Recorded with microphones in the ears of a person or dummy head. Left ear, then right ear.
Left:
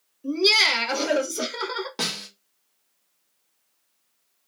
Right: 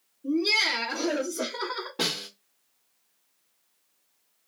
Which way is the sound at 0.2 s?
45° left (ahead or behind).